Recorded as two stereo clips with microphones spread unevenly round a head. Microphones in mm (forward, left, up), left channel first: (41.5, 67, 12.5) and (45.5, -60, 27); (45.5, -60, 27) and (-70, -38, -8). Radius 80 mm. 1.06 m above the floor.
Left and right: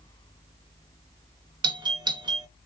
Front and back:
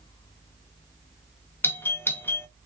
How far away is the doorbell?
About 0.5 m.